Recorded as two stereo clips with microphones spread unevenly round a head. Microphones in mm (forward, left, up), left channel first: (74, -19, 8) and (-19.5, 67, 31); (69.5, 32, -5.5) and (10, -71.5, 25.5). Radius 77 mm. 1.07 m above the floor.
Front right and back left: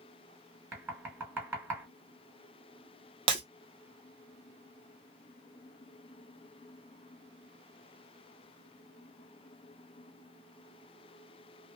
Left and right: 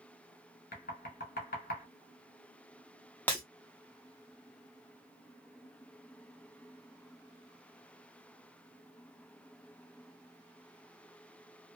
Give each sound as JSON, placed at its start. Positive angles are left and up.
{"t": 0.7, "sound": "knocking", "azimuth_deg": 65, "distance_m": 1.5}
{"t": 3.3, "sound": "breaking glass", "azimuth_deg": 150, "distance_m": 0.6}